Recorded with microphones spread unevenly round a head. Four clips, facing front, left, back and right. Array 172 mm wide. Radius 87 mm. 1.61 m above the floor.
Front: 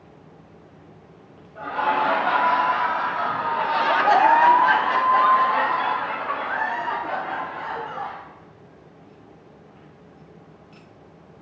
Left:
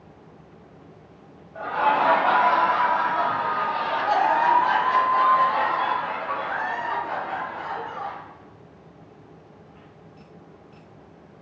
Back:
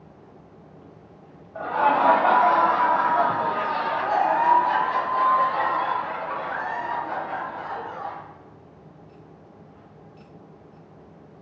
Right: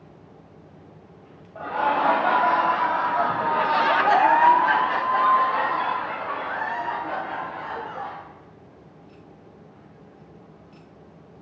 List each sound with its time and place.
1.6 s laughter: straight behind, 2.5 m; by 8.2 s 10° right, 5.5 m